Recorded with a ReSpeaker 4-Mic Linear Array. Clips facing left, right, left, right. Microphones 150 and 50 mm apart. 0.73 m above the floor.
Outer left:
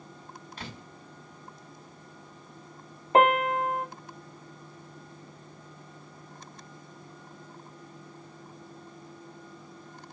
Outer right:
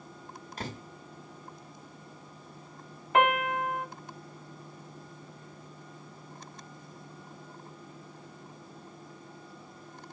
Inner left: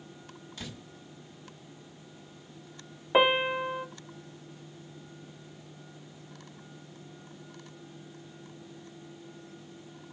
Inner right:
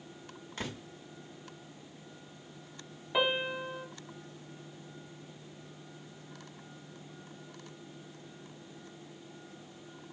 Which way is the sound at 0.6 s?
45° right (ahead or behind).